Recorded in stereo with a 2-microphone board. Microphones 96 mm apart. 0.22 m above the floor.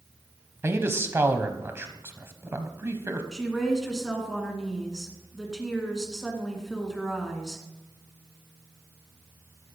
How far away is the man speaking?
About 1.0 m.